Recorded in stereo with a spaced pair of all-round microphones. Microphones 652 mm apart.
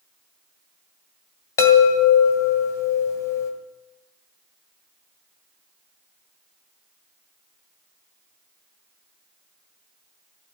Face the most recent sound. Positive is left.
turn(degrees=65)  # may be behind; listen again after turning